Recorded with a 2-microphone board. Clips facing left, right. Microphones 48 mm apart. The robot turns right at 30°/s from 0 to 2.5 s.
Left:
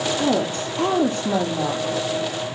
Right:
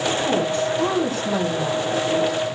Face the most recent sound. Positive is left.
turn(degrees=105)